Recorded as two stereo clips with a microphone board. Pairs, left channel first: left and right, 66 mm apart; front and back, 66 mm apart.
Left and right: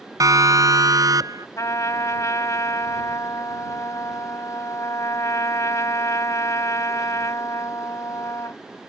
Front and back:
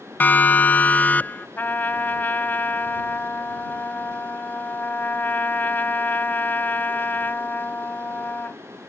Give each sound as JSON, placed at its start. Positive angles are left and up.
{"t": 0.2, "sound": "a siren", "azimuth_deg": -65}
{"t": 1.6, "sound": "a trumpet", "azimuth_deg": 55}